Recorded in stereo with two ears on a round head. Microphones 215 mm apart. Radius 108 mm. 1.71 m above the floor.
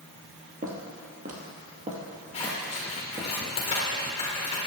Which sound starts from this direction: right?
Footsteps, at 0.6 s.